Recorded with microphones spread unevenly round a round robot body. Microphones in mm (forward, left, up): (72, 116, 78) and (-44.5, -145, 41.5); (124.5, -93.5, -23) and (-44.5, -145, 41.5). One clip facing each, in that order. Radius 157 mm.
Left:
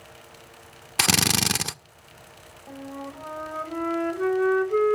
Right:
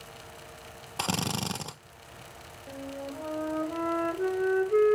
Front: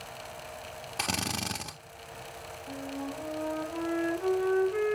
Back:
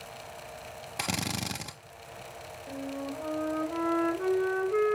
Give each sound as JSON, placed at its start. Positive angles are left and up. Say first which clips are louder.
{"t": 1.0, "sound": "a drill", "louder": "left 6 dB, back 1 dB", "azimuth_deg": 85, "distance_m": 0.5}
{"t": 2.7, "sound": "a flute", "louder": "left 1 dB, back 1 dB", "azimuth_deg": 145, "distance_m": 1.1}